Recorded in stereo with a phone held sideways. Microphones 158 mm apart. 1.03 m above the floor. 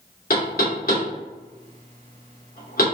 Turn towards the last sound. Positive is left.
turn(degrees=65)  # may be behind; listen again after turning